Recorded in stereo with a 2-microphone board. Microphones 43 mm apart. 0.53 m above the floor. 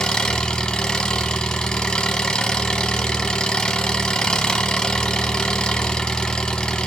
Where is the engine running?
20° left (ahead or behind), 0.9 m.